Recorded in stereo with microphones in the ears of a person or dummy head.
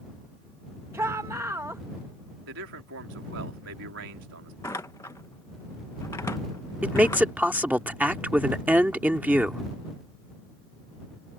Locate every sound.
0.9 s a shout: 15° right (ahead or behind)
2.5 s a man speaking: 70° right (ahead or behind)
4.6 s a door slam: 15° left (ahead or behind)
6.8 s a man speaking: 5° right (ahead or behind)